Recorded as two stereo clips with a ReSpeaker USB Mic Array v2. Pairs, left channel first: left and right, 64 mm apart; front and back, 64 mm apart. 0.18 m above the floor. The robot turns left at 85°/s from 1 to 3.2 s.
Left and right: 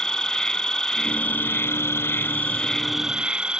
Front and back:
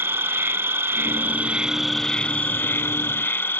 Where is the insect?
165° left; by 3.6 s 20° right.